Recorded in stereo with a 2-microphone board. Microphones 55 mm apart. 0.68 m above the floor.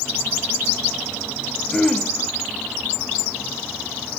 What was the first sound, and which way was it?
Throat clearing, 10° left (ahead or behind).